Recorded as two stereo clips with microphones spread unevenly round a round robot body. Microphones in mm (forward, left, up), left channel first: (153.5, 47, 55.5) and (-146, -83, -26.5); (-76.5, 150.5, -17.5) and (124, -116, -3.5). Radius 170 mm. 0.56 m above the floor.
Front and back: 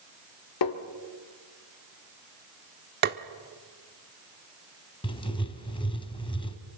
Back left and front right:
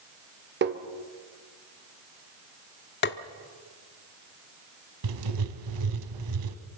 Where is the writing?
50° right, 1.7 m.